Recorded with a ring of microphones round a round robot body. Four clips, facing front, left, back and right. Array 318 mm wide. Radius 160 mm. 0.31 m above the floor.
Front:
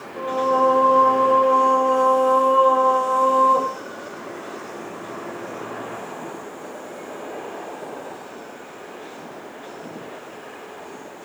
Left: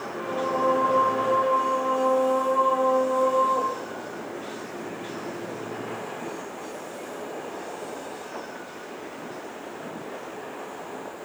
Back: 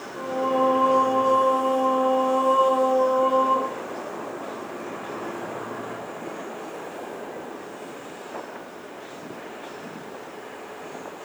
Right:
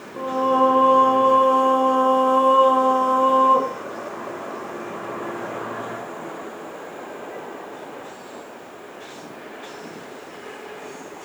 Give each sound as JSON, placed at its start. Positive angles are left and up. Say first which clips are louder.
{"t": 0.2, "sound": "singing", "louder": "right 8 dB, front 4 dB", "azimuth_deg": -70, "distance_m": 2.5}